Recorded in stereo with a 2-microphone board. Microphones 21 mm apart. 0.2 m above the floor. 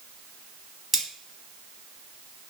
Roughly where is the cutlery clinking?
Centre.